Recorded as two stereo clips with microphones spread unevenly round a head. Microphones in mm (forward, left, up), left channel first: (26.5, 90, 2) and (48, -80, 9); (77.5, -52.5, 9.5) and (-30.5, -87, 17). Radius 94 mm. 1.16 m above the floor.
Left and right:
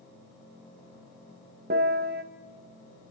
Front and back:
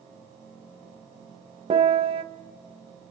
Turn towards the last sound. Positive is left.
turn(degrees=-125)